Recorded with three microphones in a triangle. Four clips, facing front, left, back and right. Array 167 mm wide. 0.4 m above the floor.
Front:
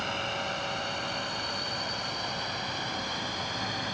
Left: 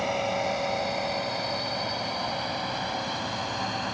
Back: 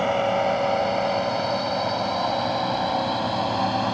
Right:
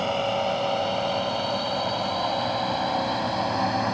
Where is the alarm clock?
No alarm clock in this recording.